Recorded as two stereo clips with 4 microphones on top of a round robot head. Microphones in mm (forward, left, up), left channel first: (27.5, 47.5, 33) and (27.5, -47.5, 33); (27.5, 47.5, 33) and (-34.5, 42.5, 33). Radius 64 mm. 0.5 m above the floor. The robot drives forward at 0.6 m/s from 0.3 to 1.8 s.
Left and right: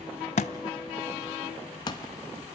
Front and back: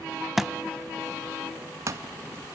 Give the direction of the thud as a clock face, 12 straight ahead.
9 o'clock.